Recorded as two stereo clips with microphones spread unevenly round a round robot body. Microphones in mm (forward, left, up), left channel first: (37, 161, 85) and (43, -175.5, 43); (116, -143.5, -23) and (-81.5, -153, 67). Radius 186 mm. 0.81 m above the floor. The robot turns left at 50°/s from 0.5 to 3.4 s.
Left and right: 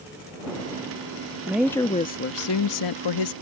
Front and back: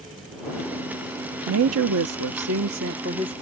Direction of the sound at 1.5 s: 170° right.